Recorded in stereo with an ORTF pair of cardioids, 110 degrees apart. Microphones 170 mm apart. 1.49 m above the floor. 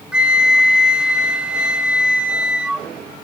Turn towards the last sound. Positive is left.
turn(degrees=-5)